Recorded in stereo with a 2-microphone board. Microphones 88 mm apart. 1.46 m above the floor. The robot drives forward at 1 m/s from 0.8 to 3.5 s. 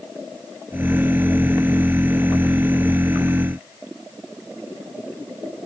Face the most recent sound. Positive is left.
No sound to turn to.